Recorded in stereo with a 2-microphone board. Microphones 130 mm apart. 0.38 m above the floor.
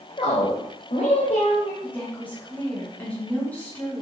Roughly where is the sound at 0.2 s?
Left.